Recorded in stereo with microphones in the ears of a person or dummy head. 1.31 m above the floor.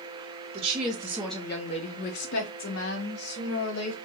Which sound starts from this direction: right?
A woman speaking, at 0.5 s.